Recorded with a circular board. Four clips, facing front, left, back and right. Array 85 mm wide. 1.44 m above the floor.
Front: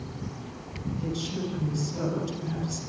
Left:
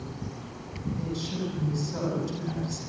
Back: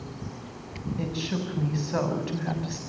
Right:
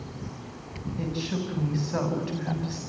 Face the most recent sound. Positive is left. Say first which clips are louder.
# right 3 dB, back 1 dB
turn(degrees=-145)